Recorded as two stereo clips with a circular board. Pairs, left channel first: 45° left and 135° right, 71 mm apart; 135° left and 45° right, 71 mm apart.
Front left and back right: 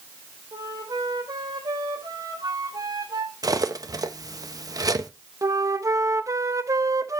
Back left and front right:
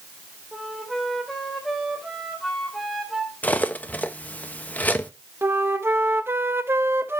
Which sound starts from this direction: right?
A flute, at 5.4 s.